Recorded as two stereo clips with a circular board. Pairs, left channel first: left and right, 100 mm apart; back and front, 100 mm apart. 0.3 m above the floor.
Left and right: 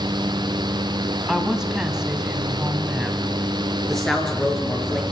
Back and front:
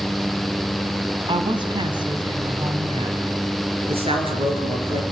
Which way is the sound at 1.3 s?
10° right.